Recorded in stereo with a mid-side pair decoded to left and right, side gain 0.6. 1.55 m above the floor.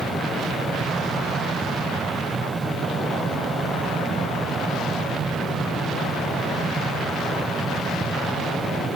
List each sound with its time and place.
0.0 s a fan: 20° right, 1.2 m